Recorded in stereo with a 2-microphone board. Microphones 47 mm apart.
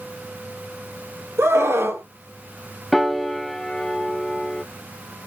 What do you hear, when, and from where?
1.4 s a scream: 70° right (ahead or behind), 2.5 m
2.9 s a piano: 5° left (ahead or behind), 1.0 m